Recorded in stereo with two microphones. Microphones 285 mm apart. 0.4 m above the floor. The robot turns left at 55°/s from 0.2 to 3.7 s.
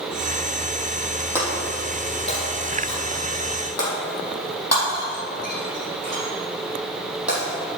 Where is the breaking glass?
10° right (ahead or behind), 5.5 m; by 7.8 s 60° left (ahead or behind), 5.5 m.